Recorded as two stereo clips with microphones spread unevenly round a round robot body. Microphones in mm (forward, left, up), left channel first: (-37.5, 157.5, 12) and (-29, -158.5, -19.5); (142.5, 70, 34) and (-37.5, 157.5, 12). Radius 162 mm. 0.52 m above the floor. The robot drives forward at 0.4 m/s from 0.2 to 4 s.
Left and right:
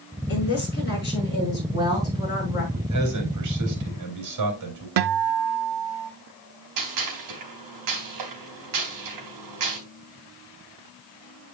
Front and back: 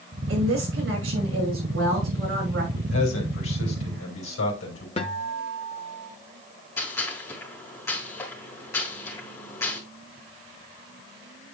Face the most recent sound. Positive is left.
turn(degrees=-110)